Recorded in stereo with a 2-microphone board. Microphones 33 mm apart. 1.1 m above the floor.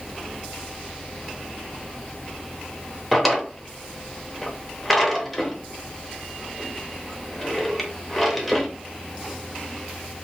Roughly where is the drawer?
Centre.